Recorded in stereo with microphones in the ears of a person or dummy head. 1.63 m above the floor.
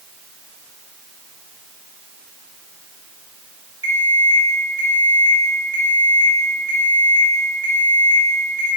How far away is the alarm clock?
About 1.2 m.